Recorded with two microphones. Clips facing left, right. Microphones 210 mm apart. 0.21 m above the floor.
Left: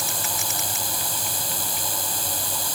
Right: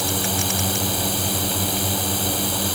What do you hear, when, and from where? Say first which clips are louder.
0.0 s a drone: right 9 dB; 65° right (ahead or behind)